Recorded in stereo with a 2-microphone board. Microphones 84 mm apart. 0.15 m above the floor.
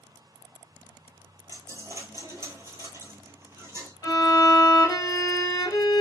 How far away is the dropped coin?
About 0.7 m.